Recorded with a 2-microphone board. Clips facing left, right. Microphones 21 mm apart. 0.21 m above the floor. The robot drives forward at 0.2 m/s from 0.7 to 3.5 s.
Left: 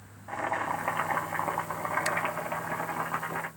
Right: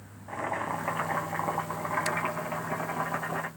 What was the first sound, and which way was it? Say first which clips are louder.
Boiling: left 1 dB; 10° left (ahead or behind).